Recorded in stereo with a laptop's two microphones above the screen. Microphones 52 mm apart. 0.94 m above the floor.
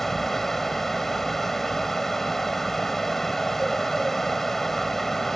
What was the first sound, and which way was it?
A fan, 5° left (ahead or behind).